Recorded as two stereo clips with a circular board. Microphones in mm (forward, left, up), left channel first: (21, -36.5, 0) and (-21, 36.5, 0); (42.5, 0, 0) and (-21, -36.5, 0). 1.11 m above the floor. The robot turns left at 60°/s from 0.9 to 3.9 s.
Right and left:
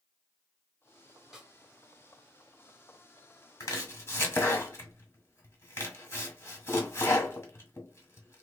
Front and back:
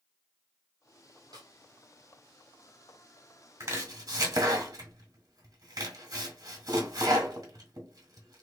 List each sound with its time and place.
1.3 s a snare drum: 155° right, 1.3 m; by 1.5 s 165° right, 1.3 m
3.6 s chopping: 105° right, 1.5 m; by 8.4 s 120° right, 1.5 m